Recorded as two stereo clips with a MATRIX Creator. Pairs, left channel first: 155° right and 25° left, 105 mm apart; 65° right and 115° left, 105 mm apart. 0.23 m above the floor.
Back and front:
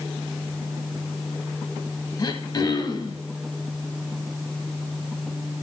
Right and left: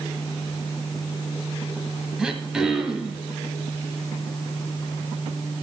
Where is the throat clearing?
170° right, 1.0 m.